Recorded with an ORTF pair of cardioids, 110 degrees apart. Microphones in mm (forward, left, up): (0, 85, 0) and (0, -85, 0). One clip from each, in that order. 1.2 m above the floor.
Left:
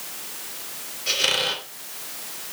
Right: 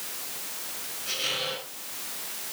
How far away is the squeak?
About 3 m.